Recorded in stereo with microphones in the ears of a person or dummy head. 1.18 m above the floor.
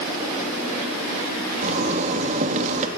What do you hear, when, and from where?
1.6 s a zipper: 40° right (ahead or behind), 2.5 m